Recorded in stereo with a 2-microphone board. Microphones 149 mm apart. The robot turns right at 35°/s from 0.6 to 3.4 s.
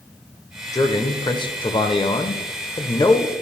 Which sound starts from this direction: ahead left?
A man speaking, at 0.7 s.